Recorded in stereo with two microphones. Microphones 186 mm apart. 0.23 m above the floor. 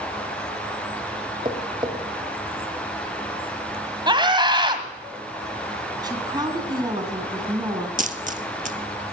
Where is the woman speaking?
20° right (ahead or behind), 2.5 m.